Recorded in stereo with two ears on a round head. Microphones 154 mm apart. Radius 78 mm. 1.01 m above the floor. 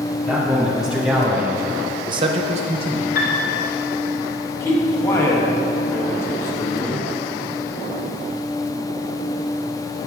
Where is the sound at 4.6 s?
15° left (ahead or behind), 0.9 m.